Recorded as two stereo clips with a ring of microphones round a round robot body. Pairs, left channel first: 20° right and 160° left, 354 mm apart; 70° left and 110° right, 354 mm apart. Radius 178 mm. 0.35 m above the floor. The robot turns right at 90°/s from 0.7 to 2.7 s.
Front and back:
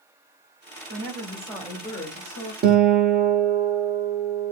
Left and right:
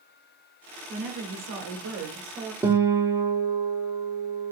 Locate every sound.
0.9 s a woman speaking: 170° right, 1.3 m; by 2.5 s 25° right, 1.3 m
2.6 s a guitar: 170° left, 0.7 m; by 4.5 s straight behind, 0.7 m